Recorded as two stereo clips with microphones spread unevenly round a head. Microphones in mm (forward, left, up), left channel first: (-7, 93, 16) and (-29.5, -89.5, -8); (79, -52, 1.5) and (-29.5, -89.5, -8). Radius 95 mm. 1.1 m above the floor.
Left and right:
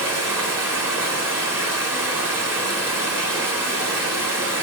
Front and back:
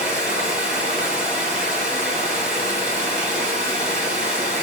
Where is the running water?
Straight behind, 2.5 m.